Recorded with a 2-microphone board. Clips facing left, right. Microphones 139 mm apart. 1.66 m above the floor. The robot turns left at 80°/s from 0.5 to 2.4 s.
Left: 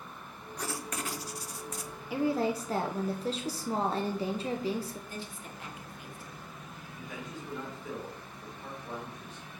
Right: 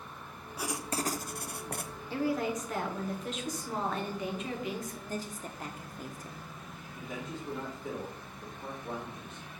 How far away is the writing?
About 0.7 m.